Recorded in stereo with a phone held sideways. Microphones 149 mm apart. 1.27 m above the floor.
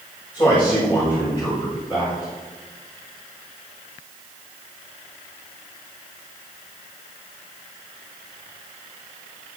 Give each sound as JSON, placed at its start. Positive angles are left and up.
{"t": 0.3, "sound": "a man speaking", "side_deg": 35, "distance_m": 7.0}